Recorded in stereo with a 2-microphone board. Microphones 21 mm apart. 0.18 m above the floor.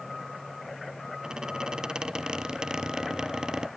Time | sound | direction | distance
1.2 | a squeak | 30° right (ahead or behind) | 1.1 m